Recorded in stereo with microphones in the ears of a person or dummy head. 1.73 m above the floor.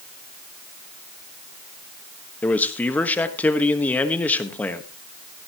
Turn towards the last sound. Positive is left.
turn(degrees=10)  # may be behind; listen again after turning